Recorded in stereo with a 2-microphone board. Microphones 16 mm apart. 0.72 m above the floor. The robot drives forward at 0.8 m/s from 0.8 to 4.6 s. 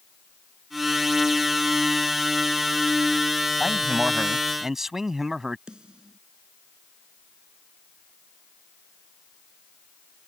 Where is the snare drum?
80° right.